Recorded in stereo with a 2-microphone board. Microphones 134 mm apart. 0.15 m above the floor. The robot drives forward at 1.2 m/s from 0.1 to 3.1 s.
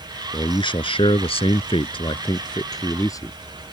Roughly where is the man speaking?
Left.